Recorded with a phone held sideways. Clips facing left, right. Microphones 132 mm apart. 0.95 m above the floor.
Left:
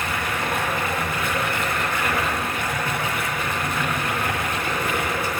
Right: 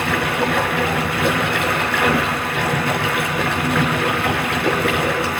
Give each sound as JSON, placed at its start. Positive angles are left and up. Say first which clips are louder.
{"t": 0.0, "sound": "running water", "louder": "right 7 dB", "side_deg": -80, "distance_m": 4.0}